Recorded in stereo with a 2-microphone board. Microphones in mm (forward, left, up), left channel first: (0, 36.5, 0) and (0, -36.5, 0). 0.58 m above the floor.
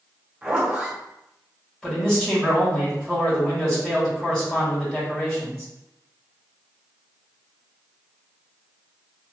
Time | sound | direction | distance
0.4 | a zipper | 15° right (ahead or behind) | 1.0 m
1.8 | a man speaking | 10° left (ahead or behind) | 1.3 m